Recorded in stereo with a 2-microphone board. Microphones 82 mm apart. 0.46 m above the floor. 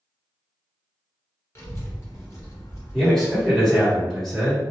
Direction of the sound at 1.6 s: 35° left (ahead or behind).